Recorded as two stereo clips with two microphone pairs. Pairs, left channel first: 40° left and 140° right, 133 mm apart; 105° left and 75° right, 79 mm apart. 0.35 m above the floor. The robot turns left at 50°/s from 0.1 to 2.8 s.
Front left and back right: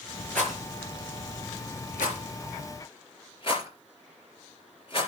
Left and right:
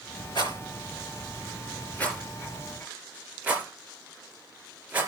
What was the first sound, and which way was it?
A rattle, 115° left.